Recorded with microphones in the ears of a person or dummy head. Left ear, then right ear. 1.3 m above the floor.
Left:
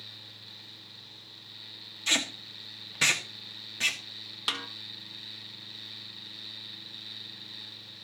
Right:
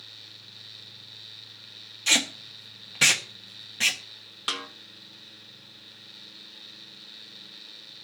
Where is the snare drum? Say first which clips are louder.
Right 1 dB; 10° left (ahead or behind), 0.8 m.